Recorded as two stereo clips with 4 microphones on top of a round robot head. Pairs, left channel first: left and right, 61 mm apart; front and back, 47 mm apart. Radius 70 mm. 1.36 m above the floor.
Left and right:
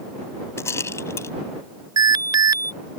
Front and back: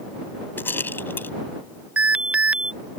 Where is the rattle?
45° left.